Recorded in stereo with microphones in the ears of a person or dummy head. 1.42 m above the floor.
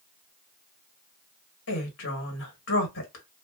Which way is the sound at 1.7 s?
70° left (ahead or behind).